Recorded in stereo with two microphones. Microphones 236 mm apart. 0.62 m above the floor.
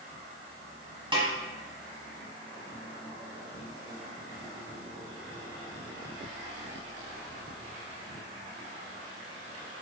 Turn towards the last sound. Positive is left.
turn(degrees=-20)  # may be behind; listen again after turning